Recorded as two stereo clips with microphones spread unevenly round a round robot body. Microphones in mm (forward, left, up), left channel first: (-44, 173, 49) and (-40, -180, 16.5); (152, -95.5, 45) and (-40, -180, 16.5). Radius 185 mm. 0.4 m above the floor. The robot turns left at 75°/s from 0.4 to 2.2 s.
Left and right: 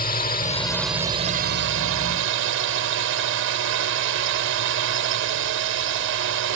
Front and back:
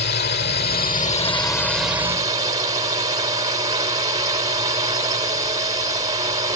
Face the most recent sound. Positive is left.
turn(degrees=-105)